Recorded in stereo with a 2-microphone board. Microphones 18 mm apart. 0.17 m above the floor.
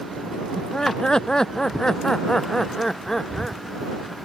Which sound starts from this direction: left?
Laughter, at 0.6 s.